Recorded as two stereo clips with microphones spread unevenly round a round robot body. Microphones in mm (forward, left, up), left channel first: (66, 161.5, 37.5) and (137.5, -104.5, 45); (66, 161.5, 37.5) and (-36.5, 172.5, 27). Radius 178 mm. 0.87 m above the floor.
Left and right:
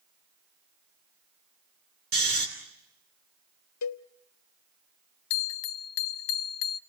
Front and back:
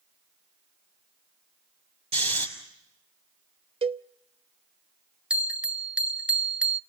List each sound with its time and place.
2.1 s snoring: 140° right, 3 m
3.8 s a cowbell: 140° left, 0.7 m
5.3 s a bell: 95° left, 0.6 m